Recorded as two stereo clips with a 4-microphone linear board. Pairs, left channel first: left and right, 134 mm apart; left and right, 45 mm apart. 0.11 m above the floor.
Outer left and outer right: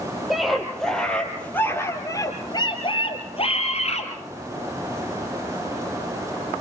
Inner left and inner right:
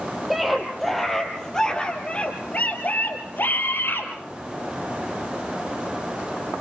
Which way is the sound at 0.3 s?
Centre (ahead or behind).